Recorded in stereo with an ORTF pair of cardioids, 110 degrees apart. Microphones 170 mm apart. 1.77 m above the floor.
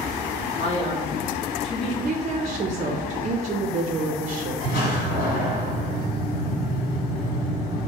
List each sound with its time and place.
0.6 s a man speaking: 40° left, 1.2 m
2.0 s a woman speaking: 45° right, 0.5 m
4.6 s a door slam: 60° left, 1.8 m